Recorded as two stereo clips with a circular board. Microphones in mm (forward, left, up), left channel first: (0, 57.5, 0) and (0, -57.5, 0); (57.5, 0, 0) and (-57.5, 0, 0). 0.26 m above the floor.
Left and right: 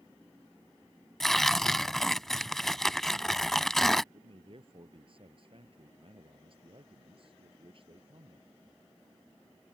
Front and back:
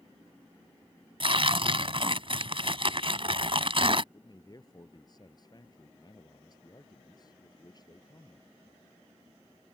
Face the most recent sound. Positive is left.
turn(degrees=-55)